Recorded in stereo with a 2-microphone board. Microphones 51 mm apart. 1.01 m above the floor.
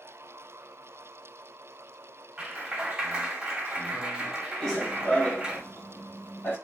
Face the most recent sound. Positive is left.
turn(degrees=45)  # may be behind; listen again after turning